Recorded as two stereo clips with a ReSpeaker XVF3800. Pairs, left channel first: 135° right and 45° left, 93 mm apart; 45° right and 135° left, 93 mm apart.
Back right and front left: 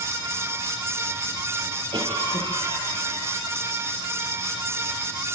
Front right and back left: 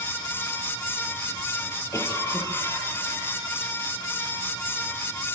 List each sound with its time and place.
1.9 s a cough: 15° left, 10 m